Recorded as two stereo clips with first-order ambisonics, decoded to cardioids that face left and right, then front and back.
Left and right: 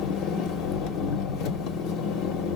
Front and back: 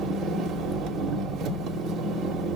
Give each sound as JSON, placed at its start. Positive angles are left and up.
{"t": 0.0, "sound": "an engine running", "azimuth_deg": 125, "distance_m": 1.1}